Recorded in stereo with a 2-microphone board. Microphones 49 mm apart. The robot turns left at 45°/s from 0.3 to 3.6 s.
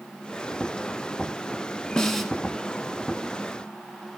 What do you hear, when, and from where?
2.0 s a snare drum: 15° left (ahead or behind), 0.8 m; by 2.3 s centre (ahead or behind), 0.8 m